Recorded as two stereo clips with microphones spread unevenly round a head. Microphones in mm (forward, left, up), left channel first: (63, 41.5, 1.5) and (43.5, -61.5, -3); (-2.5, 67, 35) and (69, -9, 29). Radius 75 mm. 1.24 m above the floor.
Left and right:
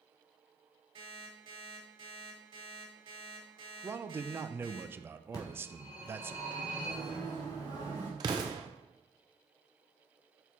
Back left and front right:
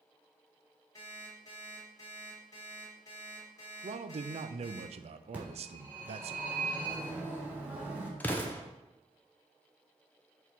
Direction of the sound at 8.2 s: 150° right.